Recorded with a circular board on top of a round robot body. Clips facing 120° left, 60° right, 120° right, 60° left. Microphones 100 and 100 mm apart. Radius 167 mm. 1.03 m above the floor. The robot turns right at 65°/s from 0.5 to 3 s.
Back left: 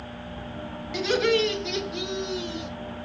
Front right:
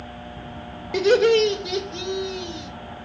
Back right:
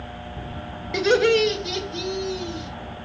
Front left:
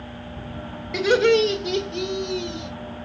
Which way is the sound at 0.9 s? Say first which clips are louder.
Front right 7 dB, front left 1 dB; 30° right.